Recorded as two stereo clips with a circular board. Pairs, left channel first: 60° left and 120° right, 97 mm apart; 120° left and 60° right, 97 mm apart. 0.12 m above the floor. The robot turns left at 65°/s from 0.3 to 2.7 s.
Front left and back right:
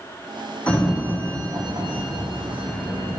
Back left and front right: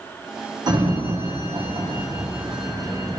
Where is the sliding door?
20° right, 1.3 m; by 3.2 s 150° right, 1.3 m.